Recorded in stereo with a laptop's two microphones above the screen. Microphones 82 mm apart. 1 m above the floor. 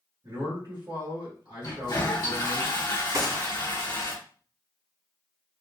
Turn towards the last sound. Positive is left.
turn(degrees=-50)  # may be behind; listen again after turning